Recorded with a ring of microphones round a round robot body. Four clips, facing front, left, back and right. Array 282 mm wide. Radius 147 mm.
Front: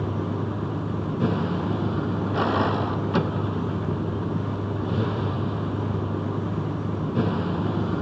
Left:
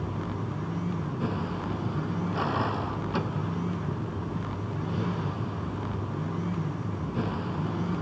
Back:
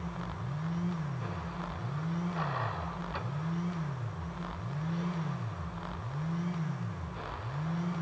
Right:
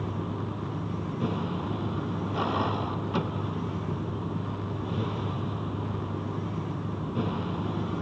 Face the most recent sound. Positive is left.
turn(degrees=-5)